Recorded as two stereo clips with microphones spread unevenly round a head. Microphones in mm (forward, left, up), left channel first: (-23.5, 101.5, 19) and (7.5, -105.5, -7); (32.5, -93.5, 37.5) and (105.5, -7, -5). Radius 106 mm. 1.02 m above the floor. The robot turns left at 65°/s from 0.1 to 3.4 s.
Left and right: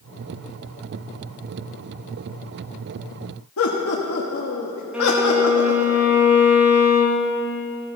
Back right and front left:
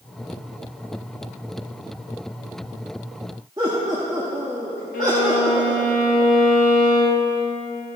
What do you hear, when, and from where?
3.6 s laughter: 120° left, 1.4 m
4.9 s a violin: 165° right, 1.3 m